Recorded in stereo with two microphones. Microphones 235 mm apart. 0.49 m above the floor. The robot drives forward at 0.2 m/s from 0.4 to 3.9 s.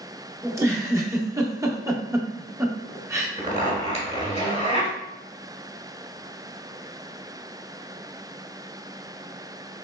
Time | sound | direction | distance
0.4 | a giggle | 10° right (ahead or behind) | 0.6 m
3.4 | a zipper | 25° right (ahead or behind) | 1.3 m